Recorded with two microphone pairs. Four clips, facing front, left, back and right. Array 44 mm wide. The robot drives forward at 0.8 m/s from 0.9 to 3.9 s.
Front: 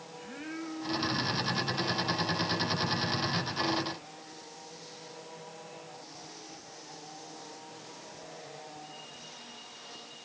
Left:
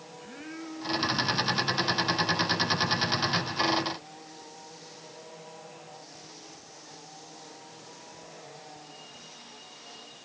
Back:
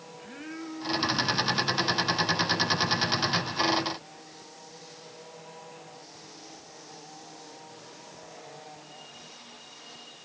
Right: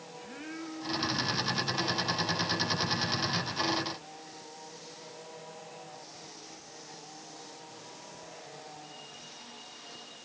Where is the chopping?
I don't hear chopping.